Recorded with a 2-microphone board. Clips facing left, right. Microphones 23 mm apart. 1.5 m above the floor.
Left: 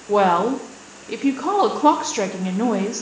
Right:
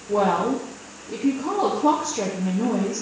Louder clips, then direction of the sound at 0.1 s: Left 4 dB; 60° left (ahead or behind).